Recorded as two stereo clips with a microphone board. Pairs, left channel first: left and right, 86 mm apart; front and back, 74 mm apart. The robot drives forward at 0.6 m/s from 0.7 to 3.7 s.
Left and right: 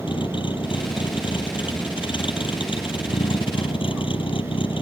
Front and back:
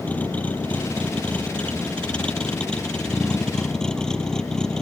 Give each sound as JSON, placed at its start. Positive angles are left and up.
{"t": 0.0, "sound": "a vehicle", "azimuth_deg": 70}